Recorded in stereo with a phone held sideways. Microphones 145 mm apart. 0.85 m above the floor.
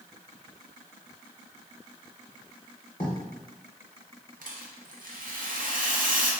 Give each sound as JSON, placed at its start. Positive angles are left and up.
{"t": 3.0, "sound": "writing", "side_deg": 30, "distance_m": 1.1}
{"t": 4.4, "sound": "a rattle", "side_deg": -70, "distance_m": 0.6}